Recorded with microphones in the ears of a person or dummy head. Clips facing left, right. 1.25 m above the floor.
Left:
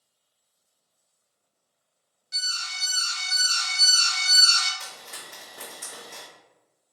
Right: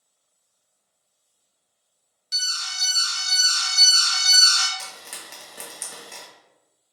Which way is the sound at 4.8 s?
40° right (ahead or behind).